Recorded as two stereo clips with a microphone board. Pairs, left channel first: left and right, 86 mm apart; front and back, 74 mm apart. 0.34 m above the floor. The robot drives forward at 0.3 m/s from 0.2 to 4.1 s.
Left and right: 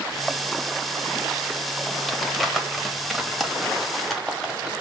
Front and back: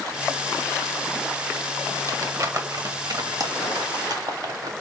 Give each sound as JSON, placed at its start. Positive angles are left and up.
{"t": 2.1, "sound": "crumpling", "azimuth_deg": 180, "distance_m": 1.0}